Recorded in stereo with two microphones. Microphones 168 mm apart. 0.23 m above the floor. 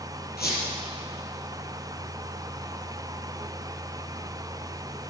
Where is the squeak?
70° left (ahead or behind), 5 m.